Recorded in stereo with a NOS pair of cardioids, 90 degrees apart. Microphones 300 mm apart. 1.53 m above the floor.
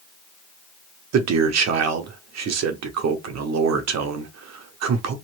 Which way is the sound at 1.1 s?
60° right.